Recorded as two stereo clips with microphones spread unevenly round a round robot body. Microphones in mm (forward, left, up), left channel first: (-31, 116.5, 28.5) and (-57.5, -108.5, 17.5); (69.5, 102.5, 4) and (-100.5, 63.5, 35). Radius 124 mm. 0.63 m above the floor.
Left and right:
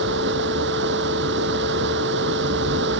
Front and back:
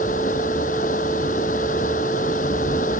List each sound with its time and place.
0.0 s running water: 50° right